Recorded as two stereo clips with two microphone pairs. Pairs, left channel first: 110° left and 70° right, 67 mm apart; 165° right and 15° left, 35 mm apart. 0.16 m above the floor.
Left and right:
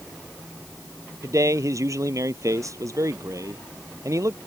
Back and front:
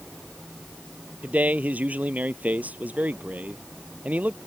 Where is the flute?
I don't hear a flute.